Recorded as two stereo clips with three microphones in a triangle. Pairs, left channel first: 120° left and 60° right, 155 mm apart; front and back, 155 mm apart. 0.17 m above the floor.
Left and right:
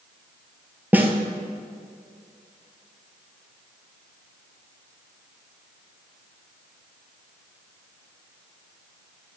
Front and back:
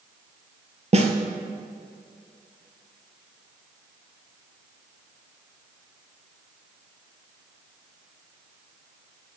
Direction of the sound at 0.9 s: 140° right.